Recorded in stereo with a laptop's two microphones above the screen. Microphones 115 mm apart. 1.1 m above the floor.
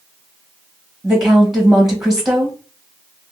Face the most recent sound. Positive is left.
turn(degrees=-5)  # may be behind; listen again after turning